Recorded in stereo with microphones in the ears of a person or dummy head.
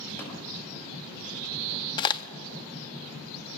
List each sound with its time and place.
0.2 s tapping: 15° left (ahead or behind), 5 m
2.0 s a crack: 30° left (ahead or behind), 0.5 m